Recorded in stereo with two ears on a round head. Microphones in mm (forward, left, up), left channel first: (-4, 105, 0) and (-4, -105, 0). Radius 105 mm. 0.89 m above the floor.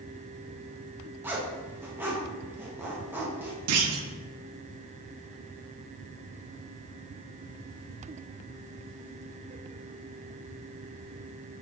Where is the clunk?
70° right (ahead or behind), 0.6 m.